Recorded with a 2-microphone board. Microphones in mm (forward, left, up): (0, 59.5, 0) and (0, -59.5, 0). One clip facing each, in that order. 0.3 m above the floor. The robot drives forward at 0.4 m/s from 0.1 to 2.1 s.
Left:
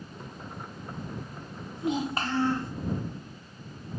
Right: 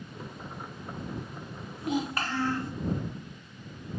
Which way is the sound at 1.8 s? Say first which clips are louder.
Left 1 dB; 25° left (ahead or behind).